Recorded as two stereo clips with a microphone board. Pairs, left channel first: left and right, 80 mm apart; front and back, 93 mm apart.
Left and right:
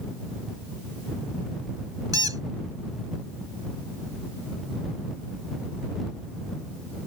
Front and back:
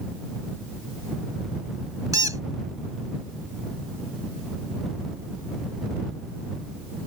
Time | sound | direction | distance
2.1 | a squeak | 130° right | ?